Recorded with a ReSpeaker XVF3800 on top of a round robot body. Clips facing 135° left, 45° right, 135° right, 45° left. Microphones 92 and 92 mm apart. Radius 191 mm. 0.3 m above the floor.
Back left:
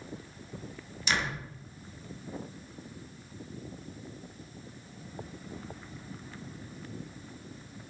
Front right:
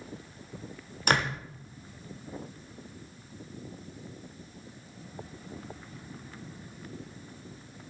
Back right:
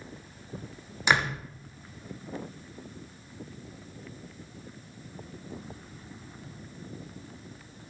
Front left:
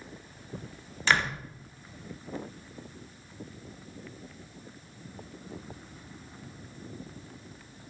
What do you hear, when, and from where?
1.1 s a door slam: 65° right, 1.3 m